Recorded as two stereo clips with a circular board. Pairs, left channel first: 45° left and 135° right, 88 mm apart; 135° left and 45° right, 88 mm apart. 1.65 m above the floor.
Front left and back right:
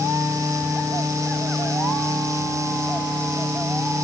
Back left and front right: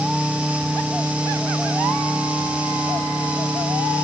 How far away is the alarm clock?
No alarm clock in this recording.